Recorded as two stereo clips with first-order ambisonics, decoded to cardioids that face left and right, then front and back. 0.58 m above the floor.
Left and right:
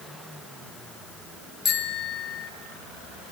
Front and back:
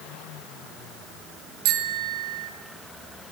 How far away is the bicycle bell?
About 4 m.